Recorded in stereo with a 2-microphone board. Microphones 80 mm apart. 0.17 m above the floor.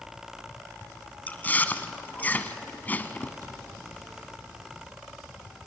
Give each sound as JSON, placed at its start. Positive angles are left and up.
{"t": 1.3, "sound": "chewing", "side_deg": 25, "distance_m": 1.1}
{"t": 3.4, "sound": "a cupboard door", "side_deg": -55, "distance_m": 7.5}